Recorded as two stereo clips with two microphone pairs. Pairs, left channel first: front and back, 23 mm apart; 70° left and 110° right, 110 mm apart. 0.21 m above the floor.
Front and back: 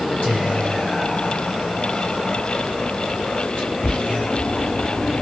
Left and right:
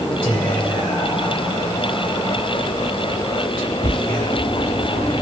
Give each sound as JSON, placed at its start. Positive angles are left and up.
{"t": 0.2, "sound": "whispering", "azimuth_deg": -10, "distance_m": 2.0}